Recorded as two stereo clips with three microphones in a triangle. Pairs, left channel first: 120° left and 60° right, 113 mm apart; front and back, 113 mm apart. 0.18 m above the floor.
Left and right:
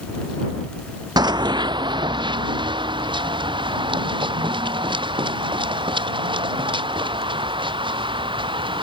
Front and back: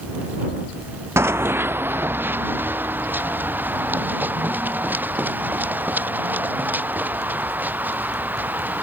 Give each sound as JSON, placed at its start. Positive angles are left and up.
{"t": 1.2, "sound": "running footsteps", "azimuth_deg": -115}